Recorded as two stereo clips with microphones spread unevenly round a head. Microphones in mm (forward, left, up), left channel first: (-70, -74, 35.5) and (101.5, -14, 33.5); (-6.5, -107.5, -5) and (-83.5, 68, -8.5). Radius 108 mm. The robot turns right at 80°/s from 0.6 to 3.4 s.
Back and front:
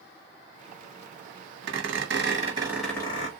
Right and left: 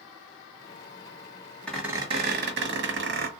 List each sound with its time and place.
1.7 s a squeak: 15° left, 0.7 m; by 3.3 s 145° left, 0.7 m